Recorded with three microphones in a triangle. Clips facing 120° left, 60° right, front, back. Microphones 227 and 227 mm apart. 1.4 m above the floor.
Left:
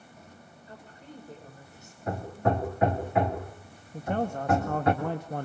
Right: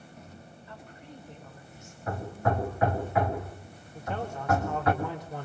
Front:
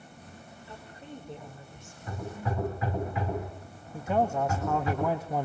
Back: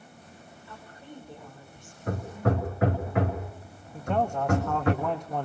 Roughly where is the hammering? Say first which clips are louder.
Left 2 dB, back 7 dB; behind.